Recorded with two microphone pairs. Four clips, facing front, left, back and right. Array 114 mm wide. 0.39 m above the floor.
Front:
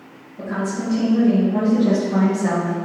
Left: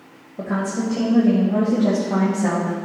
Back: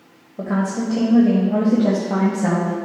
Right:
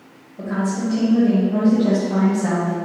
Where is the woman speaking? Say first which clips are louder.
Right 1 dB, back 3 dB; 145° left, 1.6 m; by 2.8 s 165° left, 2.5 m.